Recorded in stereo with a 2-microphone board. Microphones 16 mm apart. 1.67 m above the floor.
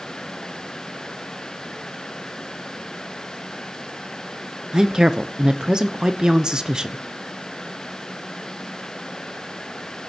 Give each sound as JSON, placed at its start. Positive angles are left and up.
{"t": 4.7, "sound": "a woman speaking", "side_deg": -50, "distance_m": 0.8}